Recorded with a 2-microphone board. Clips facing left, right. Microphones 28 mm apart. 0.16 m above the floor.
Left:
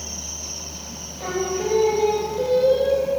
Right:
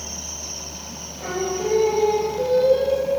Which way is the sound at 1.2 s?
5° left (ahead or behind).